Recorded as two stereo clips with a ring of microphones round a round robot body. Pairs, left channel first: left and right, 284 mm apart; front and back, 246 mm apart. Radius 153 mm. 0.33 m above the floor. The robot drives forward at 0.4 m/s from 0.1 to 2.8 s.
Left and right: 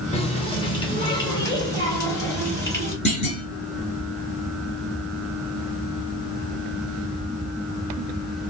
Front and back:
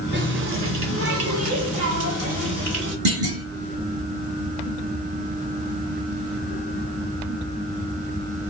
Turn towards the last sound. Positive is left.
turn(degrees=160)